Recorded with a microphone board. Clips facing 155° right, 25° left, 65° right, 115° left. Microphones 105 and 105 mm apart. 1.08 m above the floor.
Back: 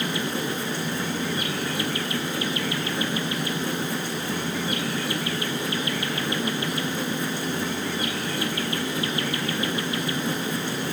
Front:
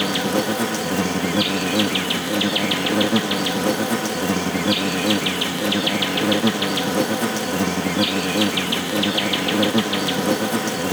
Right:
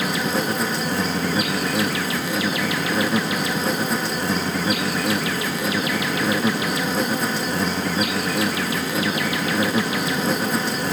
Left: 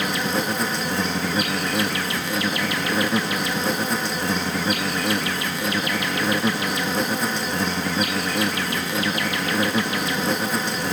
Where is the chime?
I don't hear a chime.